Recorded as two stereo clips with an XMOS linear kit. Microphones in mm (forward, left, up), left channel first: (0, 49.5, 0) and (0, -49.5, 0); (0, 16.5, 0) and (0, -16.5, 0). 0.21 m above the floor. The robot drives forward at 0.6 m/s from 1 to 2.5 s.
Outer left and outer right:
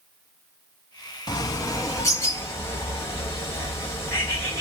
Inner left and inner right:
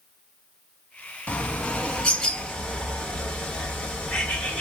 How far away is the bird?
About 0.8 m.